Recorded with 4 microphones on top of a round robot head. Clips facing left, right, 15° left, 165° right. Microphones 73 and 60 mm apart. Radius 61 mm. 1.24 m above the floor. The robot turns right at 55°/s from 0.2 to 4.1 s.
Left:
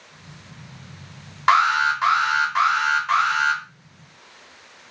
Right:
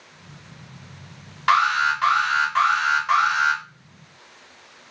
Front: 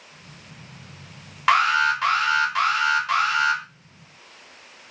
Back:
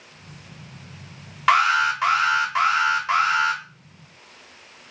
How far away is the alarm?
About 0.8 m.